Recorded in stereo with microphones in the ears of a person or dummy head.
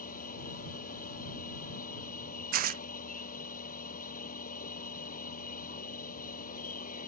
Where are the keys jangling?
No keys jangling in this recording.